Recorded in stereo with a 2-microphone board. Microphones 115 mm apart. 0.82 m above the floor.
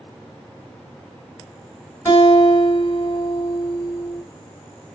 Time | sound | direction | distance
2.0 | a guitar | 25° left (ahead or behind) | 1.5 m